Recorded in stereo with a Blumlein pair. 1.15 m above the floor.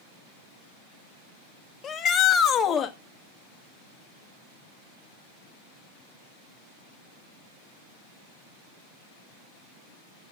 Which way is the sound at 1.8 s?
20° left.